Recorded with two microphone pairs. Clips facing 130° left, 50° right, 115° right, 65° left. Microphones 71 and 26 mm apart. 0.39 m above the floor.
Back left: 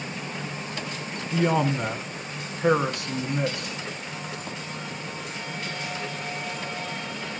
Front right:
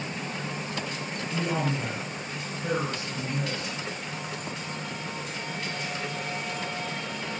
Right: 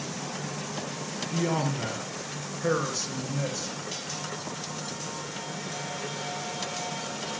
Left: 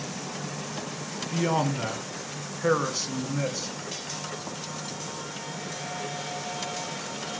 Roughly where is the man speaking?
Behind left.